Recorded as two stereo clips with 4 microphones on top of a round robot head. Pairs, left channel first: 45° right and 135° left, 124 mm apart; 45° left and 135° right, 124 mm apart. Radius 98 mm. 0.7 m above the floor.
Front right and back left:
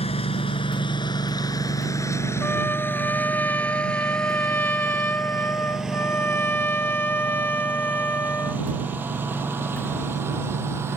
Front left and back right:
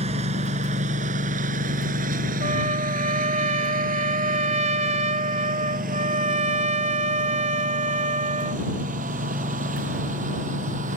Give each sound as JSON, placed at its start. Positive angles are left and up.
{"t": 0.0, "sound": "a lawn mower", "azimuth_deg": -90}
{"t": 2.4, "sound": "a trumpet", "azimuth_deg": -120}